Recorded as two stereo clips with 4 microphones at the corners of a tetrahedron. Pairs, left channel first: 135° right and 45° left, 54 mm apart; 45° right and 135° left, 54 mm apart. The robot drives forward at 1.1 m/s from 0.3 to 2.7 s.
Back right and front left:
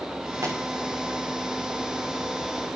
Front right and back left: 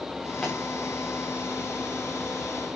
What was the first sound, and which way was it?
A pop, 35° left.